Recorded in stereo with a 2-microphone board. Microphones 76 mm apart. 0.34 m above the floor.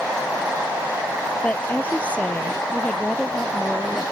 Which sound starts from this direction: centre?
A woman speaking, at 1.4 s.